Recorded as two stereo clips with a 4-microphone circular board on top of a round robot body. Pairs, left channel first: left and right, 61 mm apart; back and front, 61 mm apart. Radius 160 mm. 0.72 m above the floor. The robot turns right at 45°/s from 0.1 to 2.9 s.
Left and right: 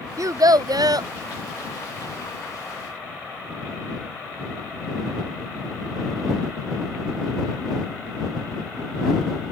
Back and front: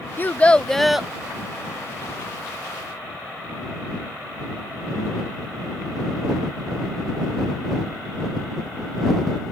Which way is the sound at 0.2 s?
120° right.